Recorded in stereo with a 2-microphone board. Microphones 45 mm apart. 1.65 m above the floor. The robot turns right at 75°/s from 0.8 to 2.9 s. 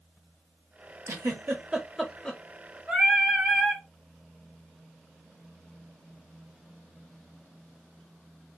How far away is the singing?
About 1.8 m.